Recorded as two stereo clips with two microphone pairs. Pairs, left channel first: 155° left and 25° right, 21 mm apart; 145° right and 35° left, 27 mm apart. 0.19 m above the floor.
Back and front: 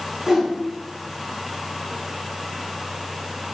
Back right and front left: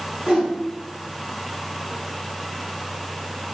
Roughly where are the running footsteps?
No running footsteps in this recording.